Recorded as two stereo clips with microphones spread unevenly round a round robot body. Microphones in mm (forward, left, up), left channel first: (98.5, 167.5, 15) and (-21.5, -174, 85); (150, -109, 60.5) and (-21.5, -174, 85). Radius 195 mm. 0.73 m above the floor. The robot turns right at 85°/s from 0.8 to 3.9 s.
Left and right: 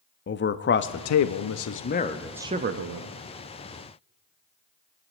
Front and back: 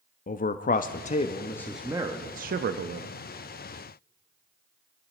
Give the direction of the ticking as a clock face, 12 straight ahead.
No ticking in this recording.